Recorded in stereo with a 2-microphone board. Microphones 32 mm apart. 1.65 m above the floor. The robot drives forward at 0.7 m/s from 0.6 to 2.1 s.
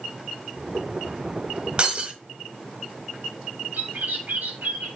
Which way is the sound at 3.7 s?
75° right (ahead or behind).